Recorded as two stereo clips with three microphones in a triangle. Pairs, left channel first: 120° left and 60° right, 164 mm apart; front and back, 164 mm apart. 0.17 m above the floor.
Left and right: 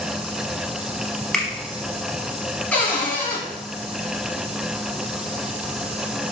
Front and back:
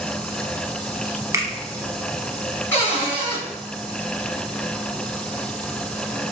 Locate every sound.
1.3 s a finger snap: 160° right, 0.8 m
2.7 s a cupboard door: 55° left, 1.4 m